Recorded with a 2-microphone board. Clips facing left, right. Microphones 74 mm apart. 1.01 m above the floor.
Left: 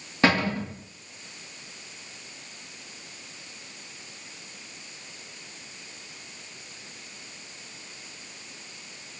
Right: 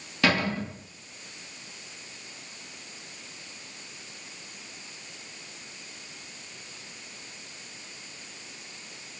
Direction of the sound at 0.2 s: 30° left (ahead or behind).